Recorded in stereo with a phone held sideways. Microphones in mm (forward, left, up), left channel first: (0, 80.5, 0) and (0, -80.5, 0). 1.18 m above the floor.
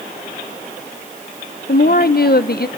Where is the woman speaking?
75° left (ahead or behind), 0.6 m.